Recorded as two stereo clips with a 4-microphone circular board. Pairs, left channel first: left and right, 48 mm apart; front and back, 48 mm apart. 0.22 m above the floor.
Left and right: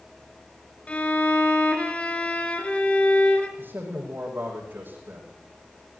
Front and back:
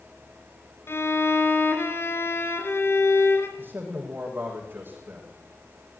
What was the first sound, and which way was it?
A violin, 30° left.